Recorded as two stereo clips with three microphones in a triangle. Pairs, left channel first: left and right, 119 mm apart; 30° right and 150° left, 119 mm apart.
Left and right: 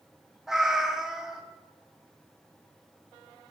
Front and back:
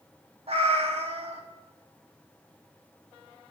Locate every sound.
0.5 s a cat meowing: 175° right, 0.8 m